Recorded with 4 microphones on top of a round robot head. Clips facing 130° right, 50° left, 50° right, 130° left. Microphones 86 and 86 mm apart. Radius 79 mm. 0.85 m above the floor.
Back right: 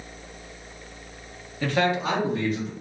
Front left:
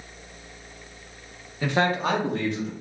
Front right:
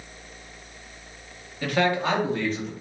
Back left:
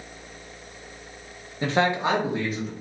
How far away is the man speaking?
About 0.7 m.